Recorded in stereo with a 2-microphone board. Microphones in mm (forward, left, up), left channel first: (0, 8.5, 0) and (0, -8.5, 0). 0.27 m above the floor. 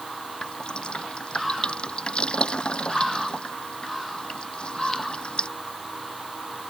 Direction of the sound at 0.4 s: 70° left (ahead or behind).